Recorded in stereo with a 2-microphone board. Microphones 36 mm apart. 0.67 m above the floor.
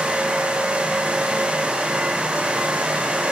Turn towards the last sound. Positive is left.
No sound to turn to.